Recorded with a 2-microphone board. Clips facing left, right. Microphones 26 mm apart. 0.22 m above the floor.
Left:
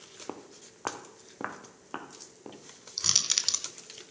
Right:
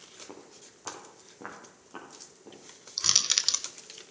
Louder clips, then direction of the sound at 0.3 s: Left 5 dB; 80° left.